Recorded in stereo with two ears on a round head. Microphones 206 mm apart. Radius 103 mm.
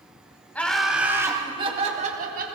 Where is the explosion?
I don't hear an explosion.